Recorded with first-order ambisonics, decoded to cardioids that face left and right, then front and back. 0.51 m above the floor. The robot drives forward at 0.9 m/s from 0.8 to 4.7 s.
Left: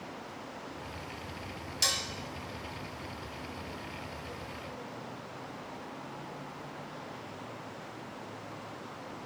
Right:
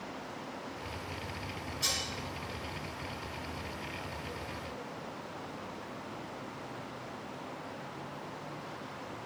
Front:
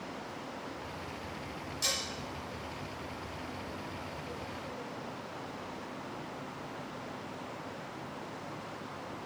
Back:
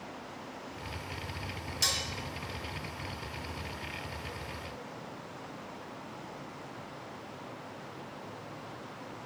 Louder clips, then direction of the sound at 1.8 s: Left 3 dB, back 3 dB; 115° left.